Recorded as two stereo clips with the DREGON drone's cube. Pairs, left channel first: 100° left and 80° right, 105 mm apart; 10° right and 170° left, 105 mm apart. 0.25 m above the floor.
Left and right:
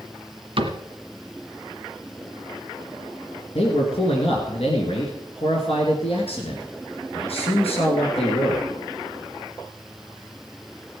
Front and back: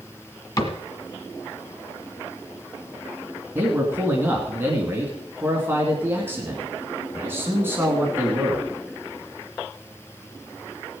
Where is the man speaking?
105° left, 2.5 m.